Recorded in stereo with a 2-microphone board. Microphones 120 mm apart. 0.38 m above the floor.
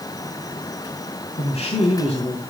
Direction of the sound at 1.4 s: 65° left (ahead or behind).